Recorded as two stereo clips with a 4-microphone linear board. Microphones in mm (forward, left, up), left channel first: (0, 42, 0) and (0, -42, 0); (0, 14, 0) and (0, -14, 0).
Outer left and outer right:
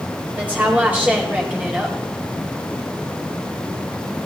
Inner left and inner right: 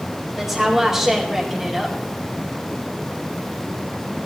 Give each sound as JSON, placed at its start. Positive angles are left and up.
{"t": 0.4, "sound": "a woman speaking", "side_deg": -15, "distance_m": 4.0}